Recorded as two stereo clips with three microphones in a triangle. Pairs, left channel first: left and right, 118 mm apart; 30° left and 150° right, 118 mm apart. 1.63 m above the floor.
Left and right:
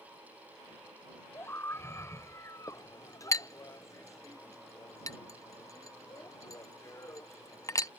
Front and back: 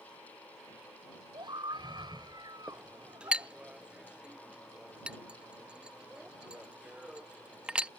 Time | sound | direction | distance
1.3 | a scream | 160° left | ?
2.7 | a clink | 135° left | ?